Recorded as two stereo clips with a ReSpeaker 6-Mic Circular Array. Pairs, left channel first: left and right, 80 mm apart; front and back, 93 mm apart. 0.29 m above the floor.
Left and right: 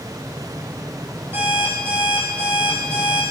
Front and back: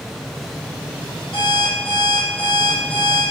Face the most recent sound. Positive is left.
turn(degrees=-25)